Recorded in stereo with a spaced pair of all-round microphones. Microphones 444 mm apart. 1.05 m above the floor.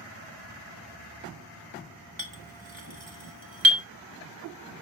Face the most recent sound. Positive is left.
turn(degrees=-80)